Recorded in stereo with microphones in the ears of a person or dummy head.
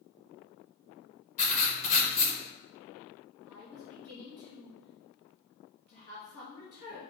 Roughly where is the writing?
Left.